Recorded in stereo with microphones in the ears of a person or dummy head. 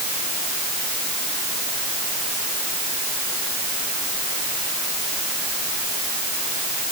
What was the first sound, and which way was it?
Only background noise.